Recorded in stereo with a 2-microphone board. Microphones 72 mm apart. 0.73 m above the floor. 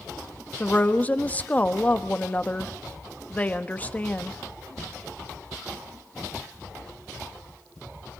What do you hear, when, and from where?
0.6 s a woman speaking: 20° left (ahead or behind), 1.1 m